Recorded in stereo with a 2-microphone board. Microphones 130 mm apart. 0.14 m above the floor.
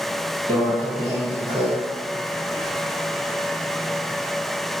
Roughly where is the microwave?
Left.